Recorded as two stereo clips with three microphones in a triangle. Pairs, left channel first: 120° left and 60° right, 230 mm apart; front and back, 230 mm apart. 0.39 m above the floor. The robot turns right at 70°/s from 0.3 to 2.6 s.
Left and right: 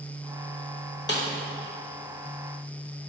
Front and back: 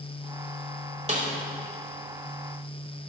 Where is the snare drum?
130° left, 1.2 m; by 1.3 s 145° left, 1.2 m.